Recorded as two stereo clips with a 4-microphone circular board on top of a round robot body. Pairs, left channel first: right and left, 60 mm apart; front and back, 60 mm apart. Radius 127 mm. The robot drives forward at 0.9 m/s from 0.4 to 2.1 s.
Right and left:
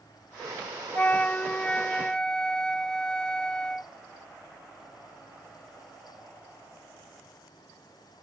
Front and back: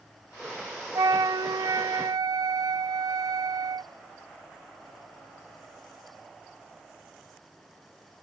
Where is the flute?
155° right; by 3.9 s 170° right.